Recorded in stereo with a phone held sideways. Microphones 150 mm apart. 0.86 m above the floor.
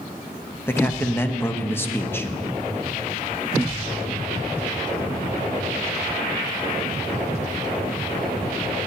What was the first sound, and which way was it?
A man speaking, 15° left (ahead or behind).